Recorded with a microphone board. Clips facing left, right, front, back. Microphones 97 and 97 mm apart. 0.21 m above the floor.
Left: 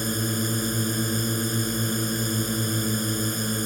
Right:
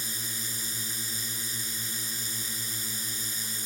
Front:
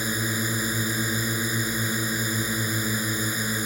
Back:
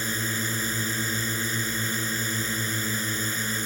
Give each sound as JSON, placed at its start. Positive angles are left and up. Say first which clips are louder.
{"t": 0.0, "sound": "a drone", "louder": "left 15 dB, front 2 dB", "azimuth_deg": 75}